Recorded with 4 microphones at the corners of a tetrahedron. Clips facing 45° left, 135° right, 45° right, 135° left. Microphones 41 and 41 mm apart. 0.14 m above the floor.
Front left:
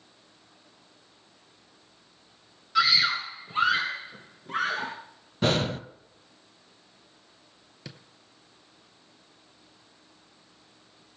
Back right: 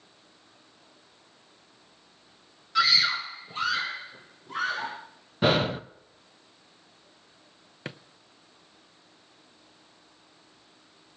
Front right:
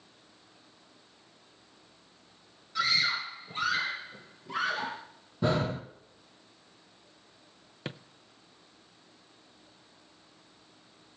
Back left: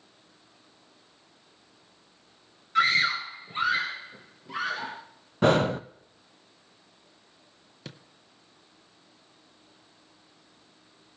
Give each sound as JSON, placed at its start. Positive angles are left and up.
{"t": 2.8, "sound": "a scream", "azimuth_deg": 130, "distance_m": 1.6}
{"t": 5.4, "sound": "breathing", "azimuth_deg": 145, "distance_m": 0.6}
{"t": 7.8, "sound": "a drawer", "azimuth_deg": -95, "distance_m": 0.7}